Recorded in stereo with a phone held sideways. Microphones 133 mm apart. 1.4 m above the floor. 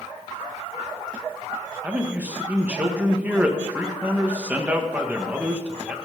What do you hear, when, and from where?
1.8 s a man speaking: 10° right (ahead or behind), 1.6 m